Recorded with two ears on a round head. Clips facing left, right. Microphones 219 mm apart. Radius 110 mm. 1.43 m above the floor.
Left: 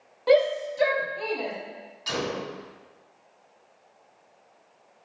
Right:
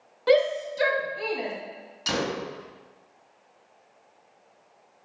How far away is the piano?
I don't hear a piano.